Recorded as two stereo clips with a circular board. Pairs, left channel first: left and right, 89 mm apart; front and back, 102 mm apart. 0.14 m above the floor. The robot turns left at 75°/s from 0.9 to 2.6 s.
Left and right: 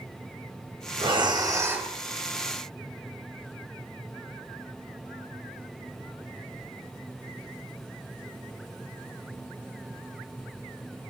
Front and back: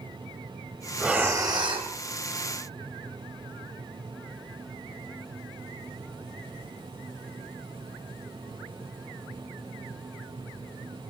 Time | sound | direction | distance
1.0 | breathing | 100° right | 2.5 m